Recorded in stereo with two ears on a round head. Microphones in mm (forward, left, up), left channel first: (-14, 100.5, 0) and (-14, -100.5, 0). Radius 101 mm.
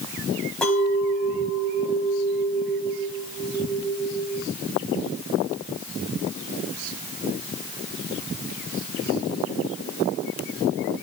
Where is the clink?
5° left (ahead or behind), 3.5 m.